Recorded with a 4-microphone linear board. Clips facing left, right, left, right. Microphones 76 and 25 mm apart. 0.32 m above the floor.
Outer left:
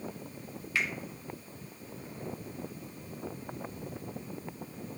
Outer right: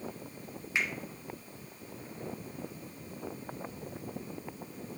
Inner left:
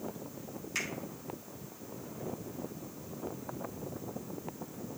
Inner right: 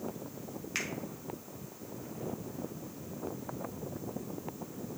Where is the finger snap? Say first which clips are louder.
Even, even; 20° right (ahead or behind), 1.6 m.